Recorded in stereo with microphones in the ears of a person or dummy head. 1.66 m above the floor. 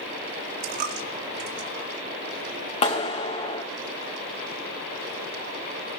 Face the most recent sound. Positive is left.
turn(degrees=35)  # may be behind; listen again after turning